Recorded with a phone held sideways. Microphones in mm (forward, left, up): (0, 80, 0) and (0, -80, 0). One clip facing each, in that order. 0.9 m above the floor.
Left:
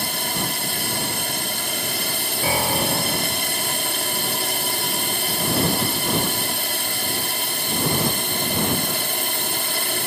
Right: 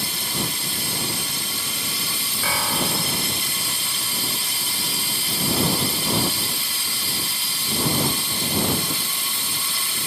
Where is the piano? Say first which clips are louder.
Left 4 dB; 35° left (ahead or behind).